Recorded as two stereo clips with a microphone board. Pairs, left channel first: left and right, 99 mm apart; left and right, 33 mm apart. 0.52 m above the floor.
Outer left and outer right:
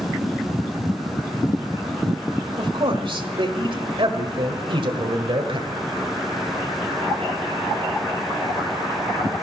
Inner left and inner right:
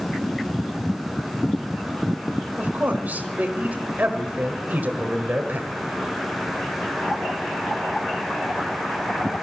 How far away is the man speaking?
About 1.7 m.